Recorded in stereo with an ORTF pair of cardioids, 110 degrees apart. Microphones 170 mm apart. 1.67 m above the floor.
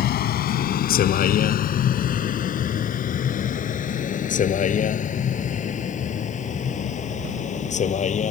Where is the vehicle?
70° left; by 8.3 s 45° left.